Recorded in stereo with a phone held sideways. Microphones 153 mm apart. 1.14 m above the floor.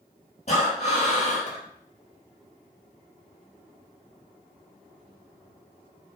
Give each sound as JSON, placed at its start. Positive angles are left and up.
{"t": 0.5, "sound": "breathing", "side_deg": 45, "distance_m": 4.0}